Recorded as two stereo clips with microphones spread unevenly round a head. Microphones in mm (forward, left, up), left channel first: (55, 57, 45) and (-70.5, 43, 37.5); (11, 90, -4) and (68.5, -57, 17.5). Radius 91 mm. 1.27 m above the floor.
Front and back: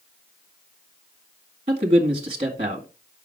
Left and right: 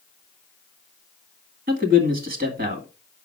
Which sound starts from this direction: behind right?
A man speaking, at 1.7 s.